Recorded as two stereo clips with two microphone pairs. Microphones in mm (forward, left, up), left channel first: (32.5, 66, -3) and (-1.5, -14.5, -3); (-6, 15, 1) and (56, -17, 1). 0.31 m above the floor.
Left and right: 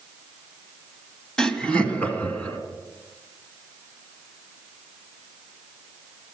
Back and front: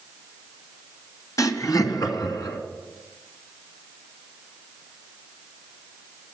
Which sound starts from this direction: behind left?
Laughter, at 1.4 s.